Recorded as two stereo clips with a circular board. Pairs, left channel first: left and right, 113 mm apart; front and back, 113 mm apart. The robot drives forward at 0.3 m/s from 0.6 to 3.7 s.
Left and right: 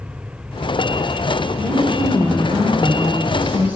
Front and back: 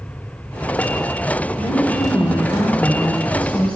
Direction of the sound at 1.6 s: 60° right.